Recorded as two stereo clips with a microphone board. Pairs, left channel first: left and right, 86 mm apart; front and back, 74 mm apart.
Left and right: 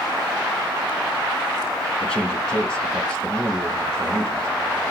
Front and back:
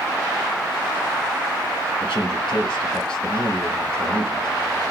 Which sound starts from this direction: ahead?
A man speaking, at 2.0 s.